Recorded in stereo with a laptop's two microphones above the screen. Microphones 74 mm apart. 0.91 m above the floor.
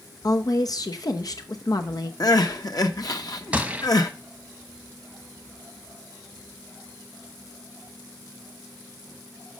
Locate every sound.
0.2 s a woman speaking: 55° left (ahead or behind), 0.8 m
2.2 s crying: 55° left (ahead or behind), 0.9 m
3.5 s a gunshot: 15° right (ahead or behind), 1.0 m